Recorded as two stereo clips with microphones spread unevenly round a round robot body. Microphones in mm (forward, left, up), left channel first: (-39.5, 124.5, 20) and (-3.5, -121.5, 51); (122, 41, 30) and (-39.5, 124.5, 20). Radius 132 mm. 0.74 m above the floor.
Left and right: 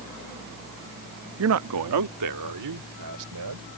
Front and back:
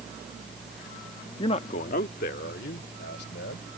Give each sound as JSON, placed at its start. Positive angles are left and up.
{"t": 1.4, "sound": "a man speaking", "azimuth_deg": -90}